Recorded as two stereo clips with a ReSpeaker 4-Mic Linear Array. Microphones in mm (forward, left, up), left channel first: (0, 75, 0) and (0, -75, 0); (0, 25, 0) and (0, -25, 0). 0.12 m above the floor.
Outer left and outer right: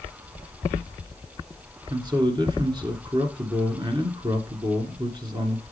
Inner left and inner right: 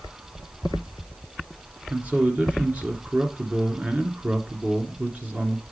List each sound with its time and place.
1.9 s a man speaking: 30° right (ahead or behind), 1.6 m